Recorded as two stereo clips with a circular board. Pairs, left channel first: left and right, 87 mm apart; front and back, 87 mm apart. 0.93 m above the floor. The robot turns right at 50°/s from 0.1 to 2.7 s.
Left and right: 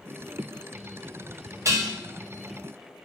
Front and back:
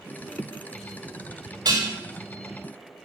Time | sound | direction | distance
1.6 | dishes clattering | 145° right | 1.6 m